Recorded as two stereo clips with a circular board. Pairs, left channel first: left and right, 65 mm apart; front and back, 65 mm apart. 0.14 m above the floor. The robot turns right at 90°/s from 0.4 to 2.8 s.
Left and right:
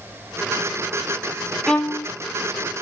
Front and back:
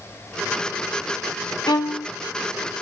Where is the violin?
5° left, 0.7 m; by 2.1 s 45° left, 0.7 m.